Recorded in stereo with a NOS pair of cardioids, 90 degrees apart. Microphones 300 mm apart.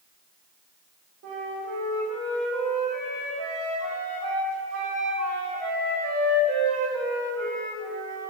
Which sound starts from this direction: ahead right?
A flute, at 1.2 s.